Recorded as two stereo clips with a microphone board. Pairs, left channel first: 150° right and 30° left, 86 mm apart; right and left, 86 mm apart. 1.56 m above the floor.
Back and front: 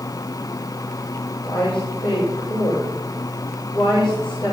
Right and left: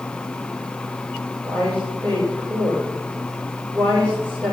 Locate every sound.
1.4 s a woman speaking: 155° right, 7 m